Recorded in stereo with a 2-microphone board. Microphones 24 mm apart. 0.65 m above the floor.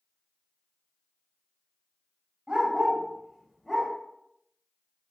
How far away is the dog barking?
About 1.3 m.